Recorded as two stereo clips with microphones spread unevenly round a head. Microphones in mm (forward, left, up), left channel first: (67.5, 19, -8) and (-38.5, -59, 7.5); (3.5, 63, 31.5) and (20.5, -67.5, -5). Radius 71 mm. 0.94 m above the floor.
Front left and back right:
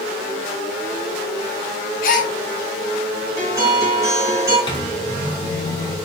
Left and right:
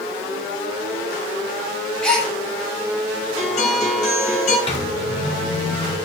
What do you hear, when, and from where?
2.0 s a gasp: 15° left, 0.6 m
3.4 s a guitar: 145° left, 1.2 m
4.7 s a microwave: 55° left, 0.6 m